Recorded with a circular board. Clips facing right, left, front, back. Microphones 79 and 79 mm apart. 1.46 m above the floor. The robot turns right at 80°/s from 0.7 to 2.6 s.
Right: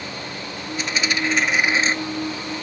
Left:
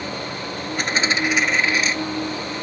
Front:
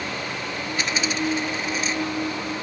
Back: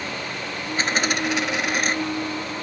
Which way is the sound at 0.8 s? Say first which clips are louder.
Left 2 dB, back 3 dB; 125° left.